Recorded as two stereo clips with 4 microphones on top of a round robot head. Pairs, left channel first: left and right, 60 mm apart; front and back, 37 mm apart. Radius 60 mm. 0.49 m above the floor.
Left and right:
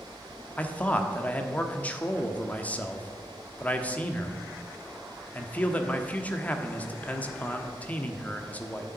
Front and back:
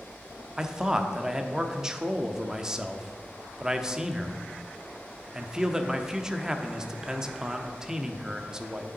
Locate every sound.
0.6 s a man speaking: 125° left, 0.9 m